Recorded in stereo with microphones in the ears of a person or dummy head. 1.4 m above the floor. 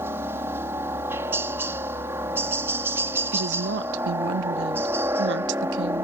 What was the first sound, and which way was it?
A helicopter, 10° right (ahead or behind).